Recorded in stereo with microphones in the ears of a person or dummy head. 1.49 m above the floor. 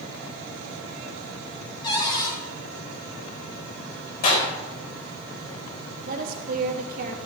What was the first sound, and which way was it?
A cupboard door, 25° left (ahead or behind).